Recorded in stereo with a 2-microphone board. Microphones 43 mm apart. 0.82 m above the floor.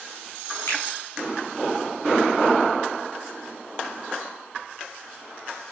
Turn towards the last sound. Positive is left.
turn(degrees=85)